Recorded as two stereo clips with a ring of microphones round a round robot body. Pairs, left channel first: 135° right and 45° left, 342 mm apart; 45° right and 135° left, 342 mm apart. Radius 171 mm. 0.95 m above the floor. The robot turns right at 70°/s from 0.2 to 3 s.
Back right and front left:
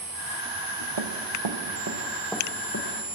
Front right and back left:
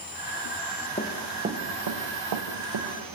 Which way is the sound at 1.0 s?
25° left.